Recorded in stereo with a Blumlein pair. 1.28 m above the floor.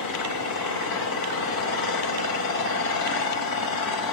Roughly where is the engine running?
Ahead left.